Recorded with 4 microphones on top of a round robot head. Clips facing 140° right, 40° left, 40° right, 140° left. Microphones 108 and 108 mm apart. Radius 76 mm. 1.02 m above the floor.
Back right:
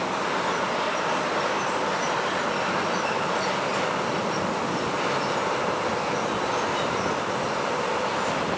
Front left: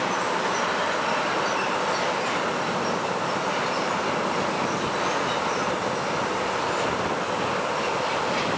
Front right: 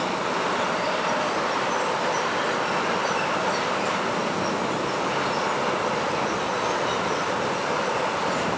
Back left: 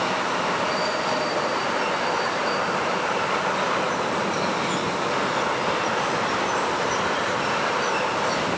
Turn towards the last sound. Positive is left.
No sound to turn to.